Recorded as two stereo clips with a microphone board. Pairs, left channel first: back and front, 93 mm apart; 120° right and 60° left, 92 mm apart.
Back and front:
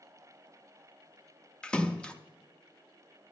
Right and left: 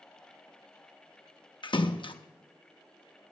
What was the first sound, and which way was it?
A splash, 100° right.